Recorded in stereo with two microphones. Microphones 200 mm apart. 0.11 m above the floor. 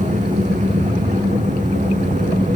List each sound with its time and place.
0.0 s an engine running: 35° right (ahead or behind), 4.5 m